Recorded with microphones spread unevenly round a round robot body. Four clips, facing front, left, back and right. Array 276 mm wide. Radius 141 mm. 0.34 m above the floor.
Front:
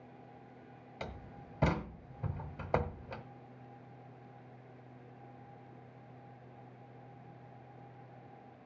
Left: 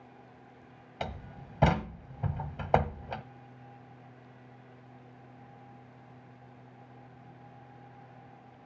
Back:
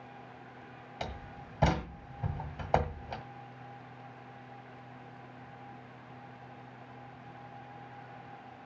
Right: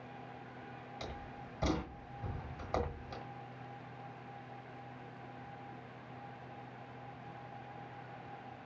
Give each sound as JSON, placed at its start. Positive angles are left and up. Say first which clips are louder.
{"t": 1.0, "sound": "a door slam", "louder": "left 9 dB, back 4 dB", "azimuth_deg": 90, "distance_m": 1.3}